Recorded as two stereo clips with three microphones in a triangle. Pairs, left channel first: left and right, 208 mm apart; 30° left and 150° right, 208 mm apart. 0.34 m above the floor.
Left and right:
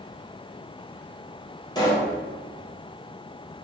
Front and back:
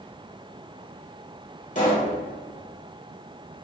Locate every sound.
1.8 s a pop: 35° left, 1.4 m